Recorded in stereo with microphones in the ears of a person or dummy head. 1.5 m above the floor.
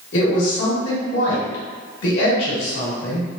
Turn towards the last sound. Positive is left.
turn(degrees=70)  # may be behind; listen again after turning